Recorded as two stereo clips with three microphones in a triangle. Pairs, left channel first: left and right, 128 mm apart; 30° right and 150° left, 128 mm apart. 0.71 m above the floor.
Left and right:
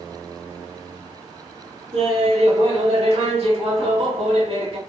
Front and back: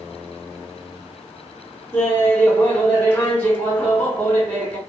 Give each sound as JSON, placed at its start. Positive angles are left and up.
{"t": 1.9, "sound": "laughter", "azimuth_deg": -105, "distance_m": 1.0}